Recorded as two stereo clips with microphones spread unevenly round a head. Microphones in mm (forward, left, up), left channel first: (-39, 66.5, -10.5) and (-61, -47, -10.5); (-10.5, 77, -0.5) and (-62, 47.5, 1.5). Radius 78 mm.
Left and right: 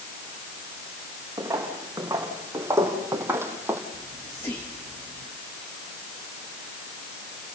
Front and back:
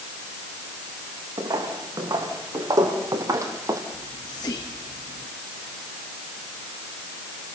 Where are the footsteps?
165° right, 5.5 m; by 3.8 s 170° right, 2.5 m.